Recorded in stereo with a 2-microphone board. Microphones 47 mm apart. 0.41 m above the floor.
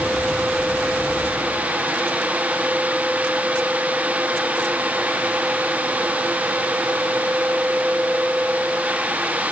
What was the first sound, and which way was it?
Only background noise.